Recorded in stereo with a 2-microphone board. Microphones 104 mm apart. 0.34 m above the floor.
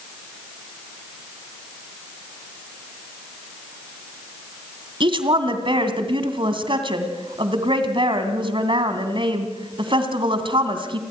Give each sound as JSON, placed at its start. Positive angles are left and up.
{"t": 5.0, "sound": "a woman speaking", "side_deg": -55, "distance_m": 2.5}